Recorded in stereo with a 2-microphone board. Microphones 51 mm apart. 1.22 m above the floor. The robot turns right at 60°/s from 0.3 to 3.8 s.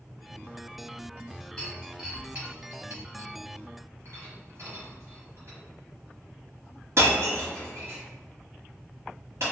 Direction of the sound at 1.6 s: 15° left (ahead or behind).